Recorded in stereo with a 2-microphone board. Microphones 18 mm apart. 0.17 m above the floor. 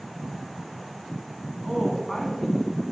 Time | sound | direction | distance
1.6 | a woman speaking | 15° right (ahead or behind) | 1.5 m